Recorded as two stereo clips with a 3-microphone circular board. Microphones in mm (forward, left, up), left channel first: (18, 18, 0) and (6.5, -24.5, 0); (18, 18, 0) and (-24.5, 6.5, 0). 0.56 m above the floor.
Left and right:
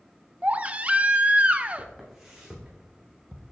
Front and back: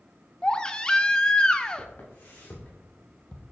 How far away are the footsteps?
About 3 m.